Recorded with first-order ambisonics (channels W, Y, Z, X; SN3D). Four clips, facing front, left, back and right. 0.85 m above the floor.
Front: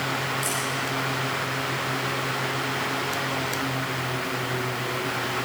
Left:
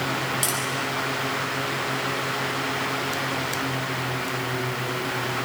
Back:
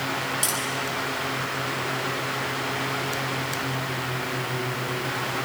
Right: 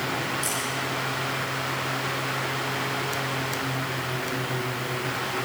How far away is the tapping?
About 9 m.